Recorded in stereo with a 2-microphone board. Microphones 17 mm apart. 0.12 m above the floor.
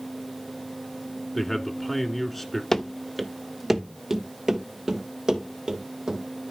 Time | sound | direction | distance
1.4 | a man speaking | 10° left (ahead or behind) | 1.2 m
2.7 | running footsteps | 25° left (ahead or behind) | 0.7 m